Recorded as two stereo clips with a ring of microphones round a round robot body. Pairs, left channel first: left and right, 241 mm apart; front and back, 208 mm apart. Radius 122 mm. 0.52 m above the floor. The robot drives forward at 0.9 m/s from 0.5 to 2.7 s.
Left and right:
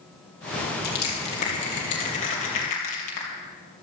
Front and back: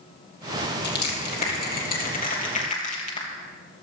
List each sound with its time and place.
0.8 s crushing: 40° left, 5 m; by 3.3 s 55° left, 3.5 m